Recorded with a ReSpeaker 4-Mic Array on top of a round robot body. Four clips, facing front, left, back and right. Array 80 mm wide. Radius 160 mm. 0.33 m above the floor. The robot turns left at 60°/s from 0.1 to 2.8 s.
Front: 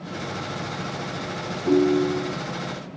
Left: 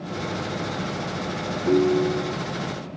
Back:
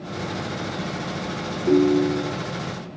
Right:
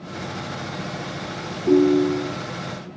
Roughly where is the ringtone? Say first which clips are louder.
Right 4 dB, back 1 dB; ahead left.